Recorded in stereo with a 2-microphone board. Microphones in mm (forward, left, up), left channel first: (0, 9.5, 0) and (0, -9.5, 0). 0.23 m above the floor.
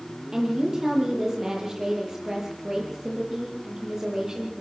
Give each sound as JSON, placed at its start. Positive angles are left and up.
{"t": 0.3, "sound": "a woman speaking", "side_deg": -30, "distance_m": 9.5}